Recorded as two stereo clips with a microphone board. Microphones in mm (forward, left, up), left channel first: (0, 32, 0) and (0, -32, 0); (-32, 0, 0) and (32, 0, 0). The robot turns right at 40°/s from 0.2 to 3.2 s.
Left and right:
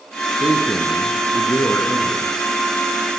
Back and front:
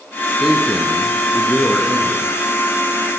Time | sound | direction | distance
0.4 | a man speaking | 80° left | 3 m